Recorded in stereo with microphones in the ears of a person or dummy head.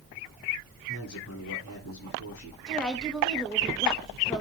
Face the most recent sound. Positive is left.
turn(degrees=5)  # may be behind; listen again after turning